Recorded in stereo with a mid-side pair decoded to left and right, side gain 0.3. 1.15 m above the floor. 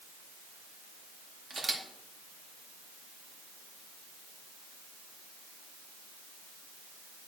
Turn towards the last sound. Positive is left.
turn(degrees=-55)